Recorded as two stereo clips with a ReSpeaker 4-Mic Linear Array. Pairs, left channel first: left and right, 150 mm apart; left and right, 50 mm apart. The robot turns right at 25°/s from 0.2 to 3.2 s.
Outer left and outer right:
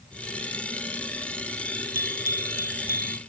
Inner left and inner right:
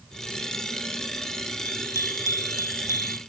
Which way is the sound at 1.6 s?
60° left.